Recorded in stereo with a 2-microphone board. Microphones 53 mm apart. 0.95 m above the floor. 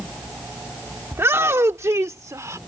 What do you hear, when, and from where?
1.1 s a shout: 55° right (ahead or behind); by 2.6 s 85° right